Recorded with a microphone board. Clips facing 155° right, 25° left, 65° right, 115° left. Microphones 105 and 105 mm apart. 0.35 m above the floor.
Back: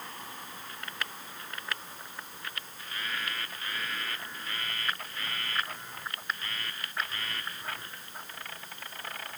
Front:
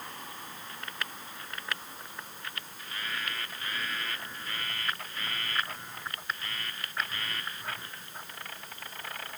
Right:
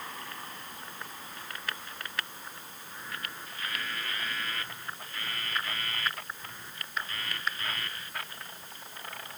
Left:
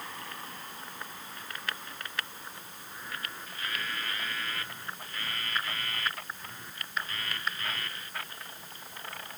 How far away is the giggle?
I don't hear a giggle.